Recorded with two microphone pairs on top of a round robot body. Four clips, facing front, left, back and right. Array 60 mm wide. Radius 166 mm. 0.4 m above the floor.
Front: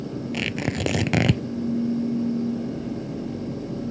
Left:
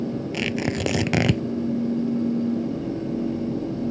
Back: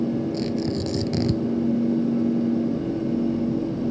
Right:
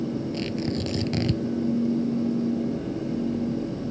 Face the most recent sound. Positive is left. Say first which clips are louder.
# left 3 dB, back 2 dB
turn(degrees=45)